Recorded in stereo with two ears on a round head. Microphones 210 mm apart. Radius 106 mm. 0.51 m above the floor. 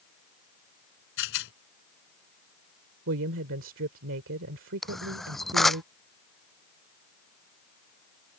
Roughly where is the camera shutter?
Centre.